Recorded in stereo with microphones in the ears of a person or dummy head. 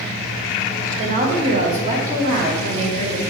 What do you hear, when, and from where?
1.0 s a woman speaking: 40° right (ahead or behind), 1.8 m; by 3.2 s 35° right (ahead or behind), 3 m